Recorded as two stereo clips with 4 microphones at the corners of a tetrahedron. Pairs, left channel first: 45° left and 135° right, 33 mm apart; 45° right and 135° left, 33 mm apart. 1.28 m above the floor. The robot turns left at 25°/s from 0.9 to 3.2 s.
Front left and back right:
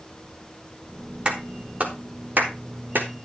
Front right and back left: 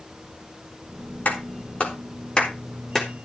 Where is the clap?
75° right, 3.5 m; by 3.1 s 125° right, 3.5 m.